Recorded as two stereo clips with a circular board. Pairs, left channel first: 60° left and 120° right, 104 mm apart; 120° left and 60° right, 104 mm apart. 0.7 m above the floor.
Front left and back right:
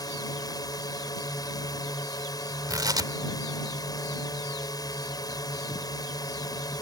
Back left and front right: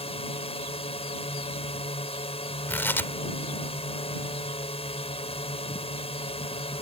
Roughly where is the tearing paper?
Behind.